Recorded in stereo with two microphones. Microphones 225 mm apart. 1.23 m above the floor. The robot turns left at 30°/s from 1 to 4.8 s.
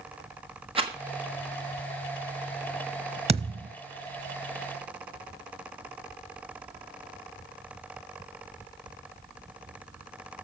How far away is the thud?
About 1.2 m.